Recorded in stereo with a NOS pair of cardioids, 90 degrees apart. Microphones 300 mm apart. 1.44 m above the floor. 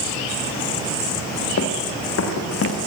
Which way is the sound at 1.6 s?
55° left.